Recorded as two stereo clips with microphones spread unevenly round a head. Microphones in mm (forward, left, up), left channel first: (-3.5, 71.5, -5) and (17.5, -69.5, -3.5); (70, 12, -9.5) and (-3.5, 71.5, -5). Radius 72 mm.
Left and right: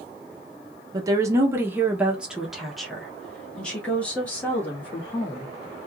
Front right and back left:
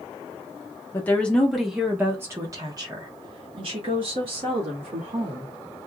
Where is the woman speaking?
55° right, 0.9 m; by 5.5 s 175° left, 2 m.